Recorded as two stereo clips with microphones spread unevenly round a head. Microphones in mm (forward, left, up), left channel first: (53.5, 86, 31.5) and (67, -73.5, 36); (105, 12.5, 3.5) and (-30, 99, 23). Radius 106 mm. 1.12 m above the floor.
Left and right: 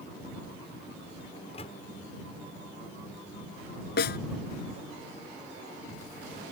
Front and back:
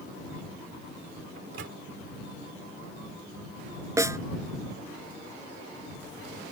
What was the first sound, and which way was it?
A microwave, 155° left.